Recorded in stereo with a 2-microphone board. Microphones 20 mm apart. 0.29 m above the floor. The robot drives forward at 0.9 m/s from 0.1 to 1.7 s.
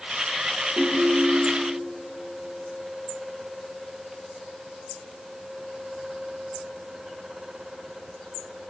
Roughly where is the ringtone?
Right.